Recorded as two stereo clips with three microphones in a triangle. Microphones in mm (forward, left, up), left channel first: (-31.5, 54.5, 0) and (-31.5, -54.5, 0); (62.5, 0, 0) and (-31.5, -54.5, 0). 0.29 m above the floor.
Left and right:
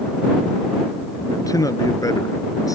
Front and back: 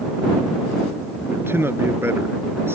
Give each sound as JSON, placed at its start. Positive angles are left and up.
{"t": 1.3, "sound": "a man speaking", "azimuth_deg": 145}